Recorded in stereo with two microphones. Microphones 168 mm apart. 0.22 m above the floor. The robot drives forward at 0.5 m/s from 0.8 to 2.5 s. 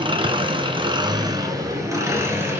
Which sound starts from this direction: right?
An engine running, at 0.0 s.